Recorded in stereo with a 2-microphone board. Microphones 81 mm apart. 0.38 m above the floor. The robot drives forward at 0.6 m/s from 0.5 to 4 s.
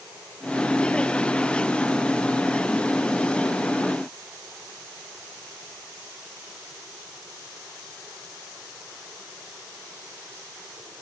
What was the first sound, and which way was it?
Only background noise.